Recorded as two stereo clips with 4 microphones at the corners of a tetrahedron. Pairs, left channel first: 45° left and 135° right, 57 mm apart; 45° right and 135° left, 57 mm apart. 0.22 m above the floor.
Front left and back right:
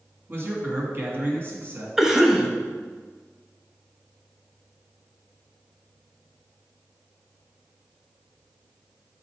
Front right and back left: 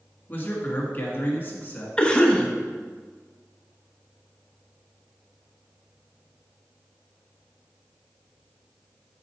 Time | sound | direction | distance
0.3 | a man speaking | 95° right | 1.9 m
2.0 | a cough | 70° right | 0.9 m